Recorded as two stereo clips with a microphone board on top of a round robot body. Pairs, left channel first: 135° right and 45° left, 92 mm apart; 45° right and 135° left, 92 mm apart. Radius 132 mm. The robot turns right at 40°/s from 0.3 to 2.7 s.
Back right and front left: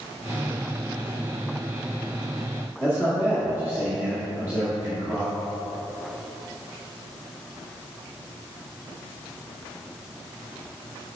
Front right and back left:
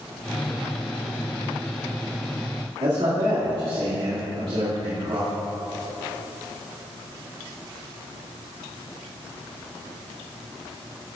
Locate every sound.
2.8 s a man speaking: 110° left, 2.5 m